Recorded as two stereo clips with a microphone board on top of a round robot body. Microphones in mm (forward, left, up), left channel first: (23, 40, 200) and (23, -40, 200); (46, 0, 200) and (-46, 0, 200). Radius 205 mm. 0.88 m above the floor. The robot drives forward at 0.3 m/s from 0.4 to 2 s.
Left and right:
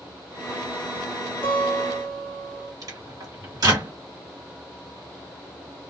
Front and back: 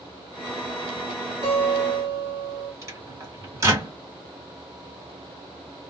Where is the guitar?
160° left, 1.2 m.